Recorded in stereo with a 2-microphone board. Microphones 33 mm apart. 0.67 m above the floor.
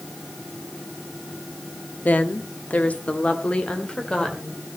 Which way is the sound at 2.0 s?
55° left (ahead or behind).